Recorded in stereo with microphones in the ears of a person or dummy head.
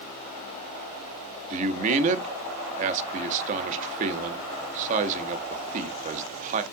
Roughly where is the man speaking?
Right.